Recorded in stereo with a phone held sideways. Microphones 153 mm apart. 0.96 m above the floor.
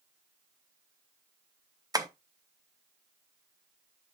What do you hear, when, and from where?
1.9 s tapping: 25° right (ahead or behind), 0.7 m